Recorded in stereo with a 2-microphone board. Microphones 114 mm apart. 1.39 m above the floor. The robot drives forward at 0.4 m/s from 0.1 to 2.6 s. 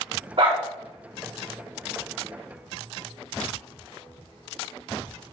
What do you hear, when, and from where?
0.4 s a dog barking: 50° right (ahead or behind), 3.5 m